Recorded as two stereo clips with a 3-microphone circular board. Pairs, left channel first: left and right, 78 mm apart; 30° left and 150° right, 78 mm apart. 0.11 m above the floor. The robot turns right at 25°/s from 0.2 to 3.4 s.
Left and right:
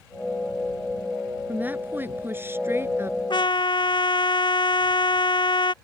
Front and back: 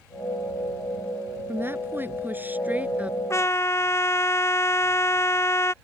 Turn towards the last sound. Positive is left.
turn(degrees=85)